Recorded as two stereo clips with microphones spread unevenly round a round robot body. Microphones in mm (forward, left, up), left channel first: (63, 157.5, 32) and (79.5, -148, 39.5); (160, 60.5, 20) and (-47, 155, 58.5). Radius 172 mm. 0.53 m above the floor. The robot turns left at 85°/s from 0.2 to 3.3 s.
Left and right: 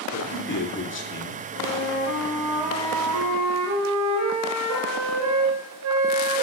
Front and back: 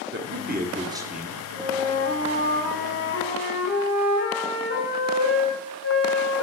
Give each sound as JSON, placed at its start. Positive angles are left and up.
{"t": 0.1, "sound": "a man speaking", "azimuth_deg": 140, "distance_m": 1.1}
{"t": 1.5, "sound": "a flute", "azimuth_deg": 90, "distance_m": 2.5}